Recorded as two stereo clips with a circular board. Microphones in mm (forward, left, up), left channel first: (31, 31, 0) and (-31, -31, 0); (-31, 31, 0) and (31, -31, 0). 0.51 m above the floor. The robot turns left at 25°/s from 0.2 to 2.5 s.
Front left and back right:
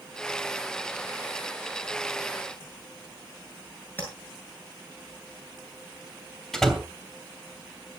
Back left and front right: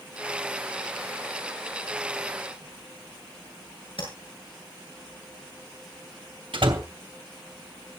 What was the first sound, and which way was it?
Tapping, 115° left.